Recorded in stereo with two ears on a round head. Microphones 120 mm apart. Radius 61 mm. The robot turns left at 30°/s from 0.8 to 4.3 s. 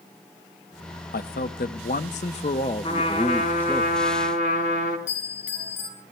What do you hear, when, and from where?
1.1 s a man speaking: 90° left, 0.9 m; by 3.8 s 10° left, 0.9 m
2.8 s a trumpet: 135° left, 4 m; by 5.0 s 90° left, 4 m
5.1 s a bell: 60° left (ahead or behind), 4 m